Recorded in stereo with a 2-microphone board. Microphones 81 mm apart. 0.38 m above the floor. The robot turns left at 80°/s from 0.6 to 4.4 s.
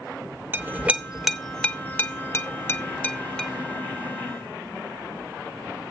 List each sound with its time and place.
0.5 s a clink: 25° right (ahead or behind), 0.6 m; by 3.5 s 5° left (ahead or behind), 0.6 m